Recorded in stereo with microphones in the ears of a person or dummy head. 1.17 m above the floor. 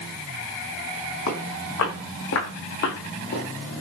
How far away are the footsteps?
About 3.5 m.